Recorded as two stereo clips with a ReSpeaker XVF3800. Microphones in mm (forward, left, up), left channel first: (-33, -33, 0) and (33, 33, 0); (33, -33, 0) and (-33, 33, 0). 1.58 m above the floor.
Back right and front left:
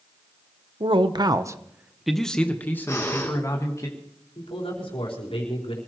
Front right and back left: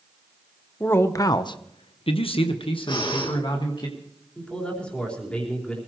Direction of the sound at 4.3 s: 125° right.